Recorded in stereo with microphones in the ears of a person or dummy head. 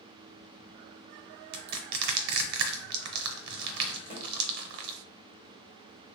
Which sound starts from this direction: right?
Crushing, at 1.5 s.